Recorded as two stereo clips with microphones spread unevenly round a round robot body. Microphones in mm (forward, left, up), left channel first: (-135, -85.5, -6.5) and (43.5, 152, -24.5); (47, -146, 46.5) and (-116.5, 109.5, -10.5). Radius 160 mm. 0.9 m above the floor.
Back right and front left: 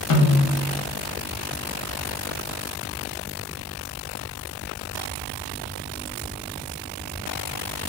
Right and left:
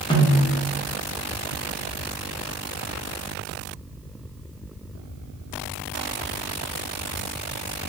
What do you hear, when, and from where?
0.1 s a snare drum: 140° right, 0.7 m